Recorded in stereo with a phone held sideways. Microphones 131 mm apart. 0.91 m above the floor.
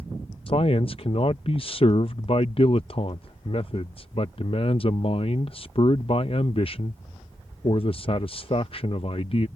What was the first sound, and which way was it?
A man speaking, 45° left (ahead or behind).